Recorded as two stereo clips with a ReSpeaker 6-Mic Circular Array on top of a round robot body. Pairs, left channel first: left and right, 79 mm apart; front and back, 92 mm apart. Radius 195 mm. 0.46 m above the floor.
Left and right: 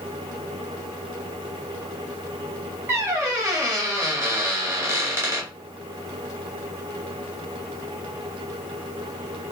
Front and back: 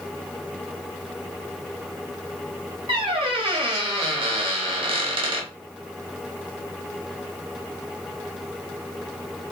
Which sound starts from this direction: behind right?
A squeak, at 2.9 s.